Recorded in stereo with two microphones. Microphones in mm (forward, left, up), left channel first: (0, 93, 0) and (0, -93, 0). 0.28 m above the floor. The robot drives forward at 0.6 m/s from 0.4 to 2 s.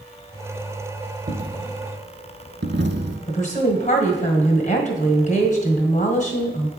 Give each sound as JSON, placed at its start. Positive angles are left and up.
{"t": 1.3, "sound": "a dropped coin", "side_deg": -45, "distance_m": 0.9}
{"t": 3.3, "sound": "a woman speaking", "side_deg": 40, "distance_m": 1.6}